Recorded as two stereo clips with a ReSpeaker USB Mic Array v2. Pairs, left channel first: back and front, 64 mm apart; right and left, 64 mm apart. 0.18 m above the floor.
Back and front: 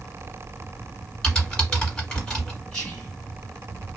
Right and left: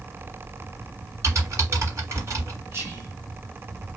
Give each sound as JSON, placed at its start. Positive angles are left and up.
{"t": 1.2, "sound": "typing on a keyboard", "azimuth_deg": 105, "distance_m": 1.5}
{"t": 2.7, "sound": "whispering", "azimuth_deg": 105, "distance_m": 2.0}